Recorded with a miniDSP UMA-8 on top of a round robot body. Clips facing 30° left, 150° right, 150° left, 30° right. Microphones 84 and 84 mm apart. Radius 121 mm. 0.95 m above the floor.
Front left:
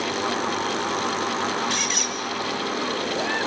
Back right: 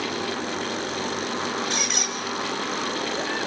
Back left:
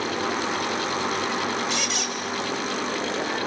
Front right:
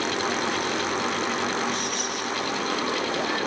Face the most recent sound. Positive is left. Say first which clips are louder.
# front left 1 dB, even
turn(degrees=135)